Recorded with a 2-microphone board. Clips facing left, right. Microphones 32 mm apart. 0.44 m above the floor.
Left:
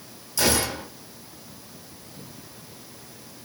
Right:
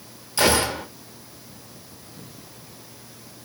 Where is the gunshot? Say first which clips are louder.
Right 4 dB; 45° right (ahead or behind), 0.6 m.